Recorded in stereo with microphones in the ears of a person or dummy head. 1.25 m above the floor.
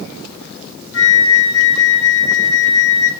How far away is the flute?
About 0.7 m.